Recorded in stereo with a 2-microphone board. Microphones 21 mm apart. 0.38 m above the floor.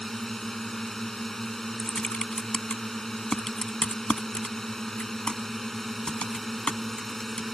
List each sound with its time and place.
0.0 s a drone: 20° left (ahead or behind)
1.8 s typing on a keyboard: 65° left (ahead or behind)